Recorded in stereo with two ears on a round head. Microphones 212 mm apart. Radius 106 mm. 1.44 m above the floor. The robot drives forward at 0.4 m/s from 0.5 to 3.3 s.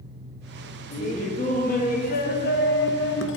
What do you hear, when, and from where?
0.9 s laughter: 30° left (ahead or behind), 1.9 m; by 3.4 s 50° left (ahead or behind), 1.1 m